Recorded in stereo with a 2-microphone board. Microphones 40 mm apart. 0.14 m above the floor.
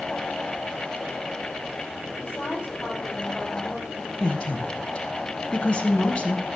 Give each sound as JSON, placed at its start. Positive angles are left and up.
{"t": 2.2, "sound": "a woman speaking", "side_deg": 65, "distance_m": 6.5}
{"t": 4.2, "sound": "a woman speaking", "side_deg": 30, "distance_m": 1.4}